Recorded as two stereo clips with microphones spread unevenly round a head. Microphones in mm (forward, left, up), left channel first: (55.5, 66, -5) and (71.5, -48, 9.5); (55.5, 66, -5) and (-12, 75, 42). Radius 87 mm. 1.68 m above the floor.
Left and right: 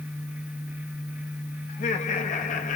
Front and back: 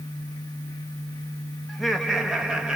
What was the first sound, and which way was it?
Laughter, 85° left.